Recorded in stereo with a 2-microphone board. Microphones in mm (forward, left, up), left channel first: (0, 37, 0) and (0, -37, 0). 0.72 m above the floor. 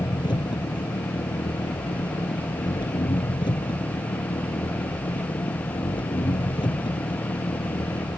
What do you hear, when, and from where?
0.0 s an engine running: 85° left